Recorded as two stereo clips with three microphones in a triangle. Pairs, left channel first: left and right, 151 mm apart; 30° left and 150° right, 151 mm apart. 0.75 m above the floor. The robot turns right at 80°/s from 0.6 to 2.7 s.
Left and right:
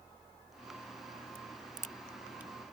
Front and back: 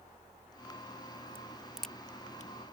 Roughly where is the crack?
Right.